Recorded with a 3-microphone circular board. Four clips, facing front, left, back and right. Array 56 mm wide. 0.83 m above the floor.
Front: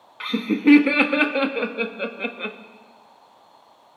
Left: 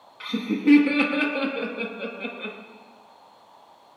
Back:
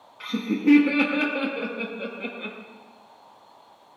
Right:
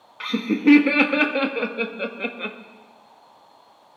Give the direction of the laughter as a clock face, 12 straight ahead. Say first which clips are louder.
Right 4 dB, front 4 dB; 1 o'clock.